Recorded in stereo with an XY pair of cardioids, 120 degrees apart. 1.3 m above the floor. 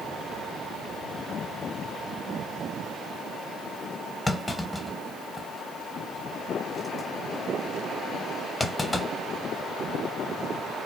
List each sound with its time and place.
4.3 s a clunk: 15° left, 0.7 m